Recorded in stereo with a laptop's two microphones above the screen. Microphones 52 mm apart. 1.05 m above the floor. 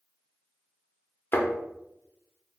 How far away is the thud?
About 0.7 m.